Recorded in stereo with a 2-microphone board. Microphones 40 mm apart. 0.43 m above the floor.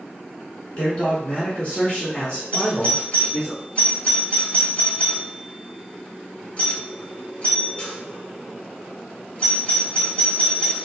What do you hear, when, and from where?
0.8 s a man speaking: 25° left (ahead or behind), 1.4 m
2.5 s a doorbell: 30° left (ahead or behind), 1.5 m